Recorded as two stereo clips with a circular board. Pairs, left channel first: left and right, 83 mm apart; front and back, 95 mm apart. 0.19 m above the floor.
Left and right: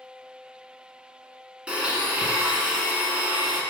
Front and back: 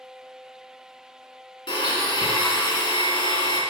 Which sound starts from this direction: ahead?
A blender, at 1.7 s.